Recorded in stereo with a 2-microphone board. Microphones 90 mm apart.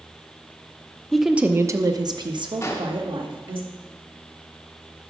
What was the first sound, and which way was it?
A woman speaking, 5° left (ahead or behind).